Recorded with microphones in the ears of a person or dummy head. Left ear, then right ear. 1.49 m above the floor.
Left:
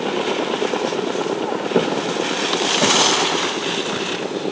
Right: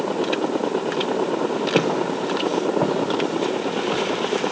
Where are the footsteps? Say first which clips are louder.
Left 3 dB; 65° right (ahead or behind), 4 m; by 4.5 s 70° right (ahead or behind), 6 m.